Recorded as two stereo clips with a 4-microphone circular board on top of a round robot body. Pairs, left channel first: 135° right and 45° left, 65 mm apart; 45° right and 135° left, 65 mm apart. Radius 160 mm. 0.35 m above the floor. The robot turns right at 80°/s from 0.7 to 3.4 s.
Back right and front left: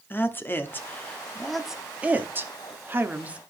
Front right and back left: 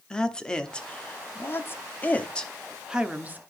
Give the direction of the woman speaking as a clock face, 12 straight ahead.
4 o'clock.